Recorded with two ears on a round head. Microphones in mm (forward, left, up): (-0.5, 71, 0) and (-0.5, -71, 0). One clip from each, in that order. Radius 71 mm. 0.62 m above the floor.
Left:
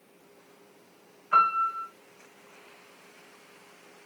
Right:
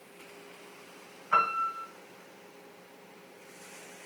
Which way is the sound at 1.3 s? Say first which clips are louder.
Left 4 dB; 15° right (ahead or behind).